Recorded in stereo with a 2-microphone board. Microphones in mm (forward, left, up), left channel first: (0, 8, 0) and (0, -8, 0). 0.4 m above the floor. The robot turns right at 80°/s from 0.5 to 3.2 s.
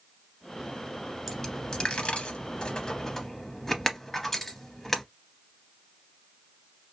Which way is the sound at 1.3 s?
10° left (ahead or behind).